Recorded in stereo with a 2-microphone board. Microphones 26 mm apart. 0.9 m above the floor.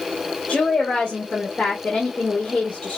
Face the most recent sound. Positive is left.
turn(degrees=50)  # may be behind; listen again after turning